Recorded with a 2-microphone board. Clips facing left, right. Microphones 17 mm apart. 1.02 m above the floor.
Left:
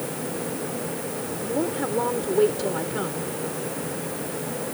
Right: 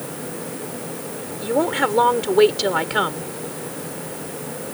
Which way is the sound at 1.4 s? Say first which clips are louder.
Right 7 dB; 60° right (ahead or behind).